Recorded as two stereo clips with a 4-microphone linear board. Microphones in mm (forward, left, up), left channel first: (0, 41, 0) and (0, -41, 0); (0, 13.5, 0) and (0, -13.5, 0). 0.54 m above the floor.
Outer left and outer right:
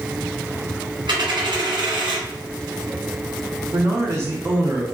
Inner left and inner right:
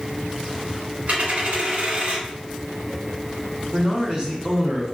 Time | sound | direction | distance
1.1 | a dropped coin | 75° right (ahead or behind) | 1.6 m
3.7 | a man speaking | 35° right (ahead or behind) | 1.0 m